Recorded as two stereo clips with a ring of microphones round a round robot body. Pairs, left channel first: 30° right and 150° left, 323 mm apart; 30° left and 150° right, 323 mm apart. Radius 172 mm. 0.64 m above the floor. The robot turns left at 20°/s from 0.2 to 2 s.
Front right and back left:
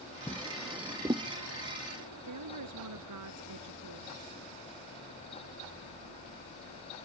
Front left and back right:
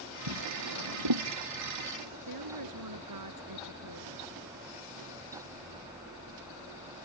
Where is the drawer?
115° right; by 1.3 s 135° right.